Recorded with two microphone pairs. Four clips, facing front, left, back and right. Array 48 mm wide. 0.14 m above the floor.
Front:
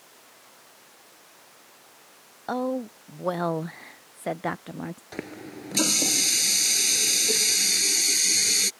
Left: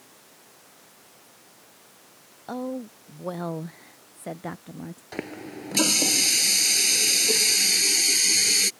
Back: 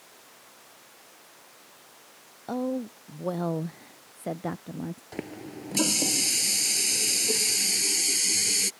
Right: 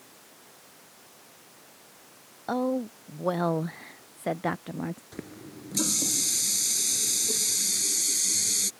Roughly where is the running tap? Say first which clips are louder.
Left 7 dB, front 1 dB; ahead left.